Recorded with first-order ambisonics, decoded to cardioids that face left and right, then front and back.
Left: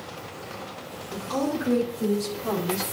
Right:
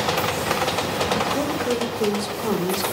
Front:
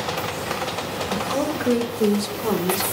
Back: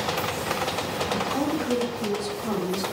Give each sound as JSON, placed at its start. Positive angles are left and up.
{"t": 1.1, "sound": "a woman speaking", "azimuth_deg": -25, "distance_m": 3.5}